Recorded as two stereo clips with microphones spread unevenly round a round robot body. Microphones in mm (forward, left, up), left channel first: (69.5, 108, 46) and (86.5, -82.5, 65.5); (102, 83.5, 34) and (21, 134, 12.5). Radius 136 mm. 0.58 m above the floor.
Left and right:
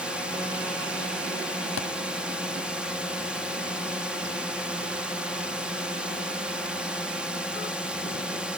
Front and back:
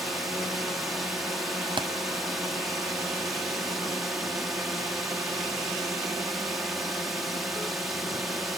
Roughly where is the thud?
Left.